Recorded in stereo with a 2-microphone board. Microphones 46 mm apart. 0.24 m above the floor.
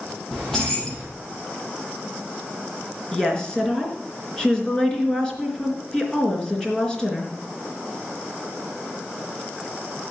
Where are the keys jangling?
5° left (ahead or behind), 5.5 m.